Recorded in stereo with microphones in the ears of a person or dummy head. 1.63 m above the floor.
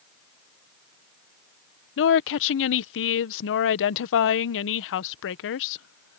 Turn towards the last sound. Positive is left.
turn(degrees=70)  # may be behind; listen again after turning